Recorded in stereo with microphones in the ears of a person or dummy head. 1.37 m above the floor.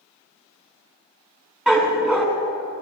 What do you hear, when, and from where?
1.7 s a dog barking: centre (ahead or behind), 3 m